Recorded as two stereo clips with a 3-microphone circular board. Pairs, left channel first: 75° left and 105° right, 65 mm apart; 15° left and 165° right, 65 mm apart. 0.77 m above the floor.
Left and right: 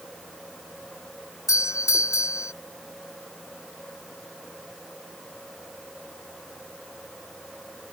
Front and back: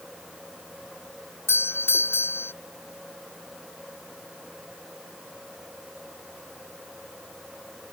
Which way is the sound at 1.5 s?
60° left.